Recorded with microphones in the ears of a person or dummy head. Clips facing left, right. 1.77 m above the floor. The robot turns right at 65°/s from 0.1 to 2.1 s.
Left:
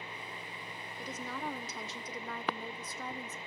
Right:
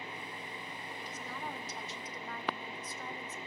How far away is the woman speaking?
About 1.2 m.